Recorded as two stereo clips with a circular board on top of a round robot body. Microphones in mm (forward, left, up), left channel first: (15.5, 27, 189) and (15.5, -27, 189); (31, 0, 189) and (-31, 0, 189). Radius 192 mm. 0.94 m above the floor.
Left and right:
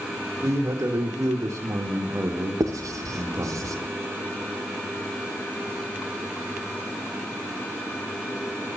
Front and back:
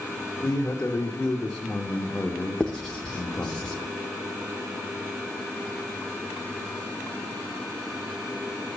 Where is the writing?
80° right, 0.8 m.